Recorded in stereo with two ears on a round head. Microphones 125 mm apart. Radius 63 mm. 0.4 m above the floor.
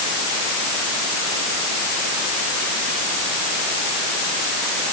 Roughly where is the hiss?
No hiss in this recording.